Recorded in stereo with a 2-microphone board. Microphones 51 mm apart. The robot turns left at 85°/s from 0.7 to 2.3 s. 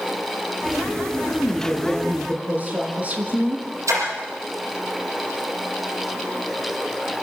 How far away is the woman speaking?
About 5.5 m.